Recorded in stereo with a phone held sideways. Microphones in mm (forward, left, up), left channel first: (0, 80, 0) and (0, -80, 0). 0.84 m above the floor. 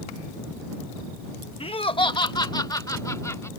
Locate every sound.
1.6 s laughter: 35° left (ahead or behind); by 3.5 s 15° left (ahead or behind)